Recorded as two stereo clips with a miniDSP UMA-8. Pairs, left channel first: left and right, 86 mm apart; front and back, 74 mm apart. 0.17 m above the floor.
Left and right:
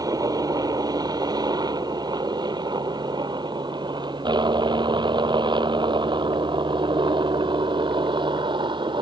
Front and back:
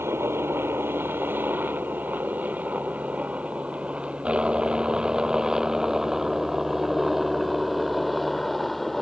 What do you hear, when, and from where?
0.0 s a helicopter: 125° right; by 9.0 s 85° right